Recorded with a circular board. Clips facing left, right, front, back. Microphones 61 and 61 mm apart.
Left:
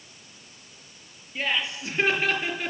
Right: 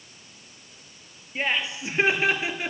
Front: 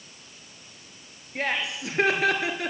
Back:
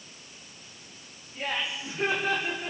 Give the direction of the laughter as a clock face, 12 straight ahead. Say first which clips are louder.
Right 1 dB, front 4 dB; 1 o'clock.